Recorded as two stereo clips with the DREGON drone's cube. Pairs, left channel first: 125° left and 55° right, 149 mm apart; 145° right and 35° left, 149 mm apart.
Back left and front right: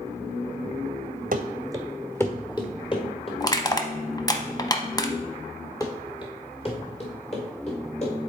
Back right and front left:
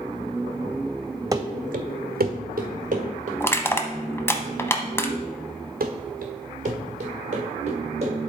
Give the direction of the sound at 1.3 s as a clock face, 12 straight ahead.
1 o'clock.